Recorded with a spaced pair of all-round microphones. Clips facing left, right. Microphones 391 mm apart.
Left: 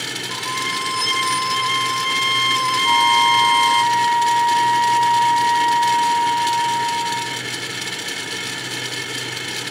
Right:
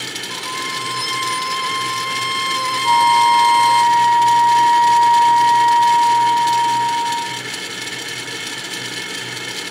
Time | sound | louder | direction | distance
0.3 | a violin | even | 25° left (ahead or behind) | ?
2.8 | a flute | right 5 dB | 45° left (ahead or behind) | ?